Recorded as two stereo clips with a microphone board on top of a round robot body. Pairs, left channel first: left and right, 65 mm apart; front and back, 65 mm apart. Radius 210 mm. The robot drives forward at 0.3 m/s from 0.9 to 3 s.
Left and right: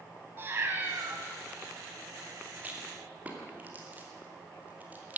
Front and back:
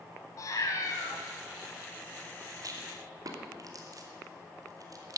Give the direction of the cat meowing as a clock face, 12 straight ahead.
1 o'clock.